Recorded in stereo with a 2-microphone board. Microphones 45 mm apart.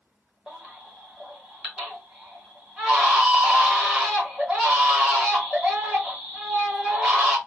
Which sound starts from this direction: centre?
A baby crying, at 0.5 s.